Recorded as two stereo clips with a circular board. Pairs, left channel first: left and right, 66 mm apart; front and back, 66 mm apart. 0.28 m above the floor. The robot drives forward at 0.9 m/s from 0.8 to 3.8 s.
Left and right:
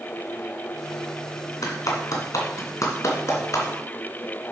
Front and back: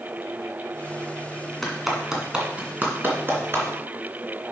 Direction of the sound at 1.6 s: 85° left.